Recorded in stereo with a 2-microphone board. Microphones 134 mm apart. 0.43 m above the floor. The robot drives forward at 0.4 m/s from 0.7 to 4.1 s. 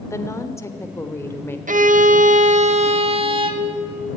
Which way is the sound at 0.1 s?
20° left (ahead or behind).